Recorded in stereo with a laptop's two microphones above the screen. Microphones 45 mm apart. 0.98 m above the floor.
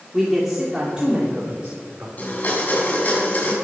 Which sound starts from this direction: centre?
A man speaking, at 0.1 s.